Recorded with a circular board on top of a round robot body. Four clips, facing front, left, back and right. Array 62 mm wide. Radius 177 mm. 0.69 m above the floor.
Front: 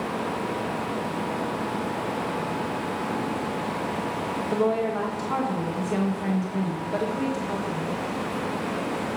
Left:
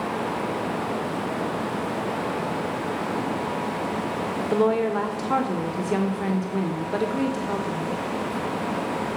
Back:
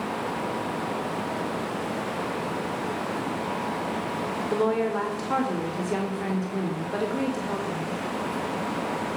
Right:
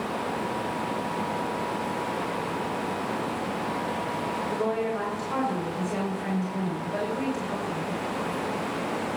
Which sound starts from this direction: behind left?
A woman speaking, at 4.5 s.